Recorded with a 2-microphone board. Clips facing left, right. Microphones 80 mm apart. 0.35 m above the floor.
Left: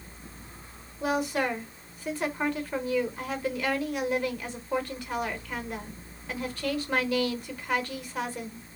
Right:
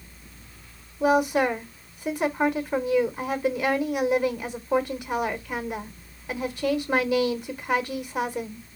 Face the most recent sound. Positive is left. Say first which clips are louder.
# right 7 dB
turn(degrees=-20)  # may be behind; listen again after turning